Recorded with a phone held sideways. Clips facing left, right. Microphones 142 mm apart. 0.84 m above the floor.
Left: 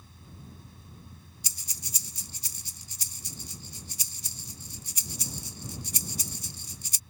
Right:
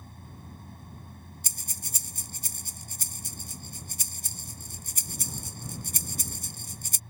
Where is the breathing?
50° right (ahead or behind).